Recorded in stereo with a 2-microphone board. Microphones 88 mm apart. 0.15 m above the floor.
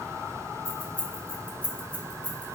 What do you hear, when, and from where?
0.7 s keys jangling: 15° left (ahead or behind), 1.2 m